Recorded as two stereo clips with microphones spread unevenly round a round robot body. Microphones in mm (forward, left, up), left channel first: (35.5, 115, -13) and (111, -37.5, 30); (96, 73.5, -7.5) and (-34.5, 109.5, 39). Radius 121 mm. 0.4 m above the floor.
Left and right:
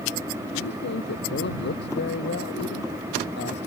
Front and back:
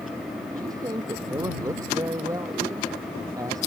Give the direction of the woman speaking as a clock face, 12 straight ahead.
9 o'clock.